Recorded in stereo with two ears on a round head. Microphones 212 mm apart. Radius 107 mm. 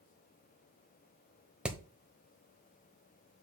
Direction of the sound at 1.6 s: 5° right (ahead or behind).